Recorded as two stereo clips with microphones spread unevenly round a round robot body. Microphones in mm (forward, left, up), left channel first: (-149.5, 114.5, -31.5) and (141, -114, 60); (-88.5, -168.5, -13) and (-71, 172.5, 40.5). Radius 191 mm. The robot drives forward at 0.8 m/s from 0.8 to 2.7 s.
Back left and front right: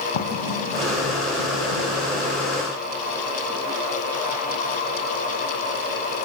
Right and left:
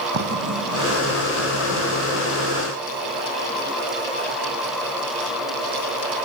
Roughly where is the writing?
Behind left.